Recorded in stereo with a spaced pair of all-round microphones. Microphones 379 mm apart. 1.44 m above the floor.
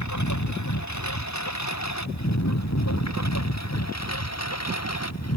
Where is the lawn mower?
45° left (ahead or behind); by 5.4 s 40° left (ahead or behind).